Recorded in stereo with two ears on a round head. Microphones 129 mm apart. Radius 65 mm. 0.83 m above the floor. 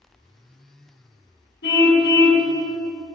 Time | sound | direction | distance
1.6 | a car horn | 85° left | 4 m